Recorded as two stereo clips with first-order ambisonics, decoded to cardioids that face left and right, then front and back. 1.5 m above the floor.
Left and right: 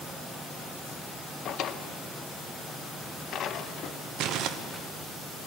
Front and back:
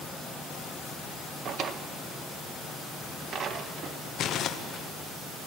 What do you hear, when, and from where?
1.4 s a drawer: 130° left, 0.7 m
4.2 s crumpling: 50° right, 0.9 m